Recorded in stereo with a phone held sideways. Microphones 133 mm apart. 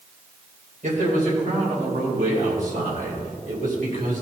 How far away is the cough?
I don't hear a cough.